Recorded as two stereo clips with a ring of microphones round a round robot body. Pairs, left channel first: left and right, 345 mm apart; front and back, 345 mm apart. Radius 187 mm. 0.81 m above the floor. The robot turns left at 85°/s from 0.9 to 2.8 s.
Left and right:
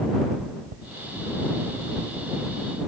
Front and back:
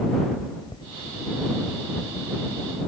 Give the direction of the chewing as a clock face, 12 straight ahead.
3 o'clock.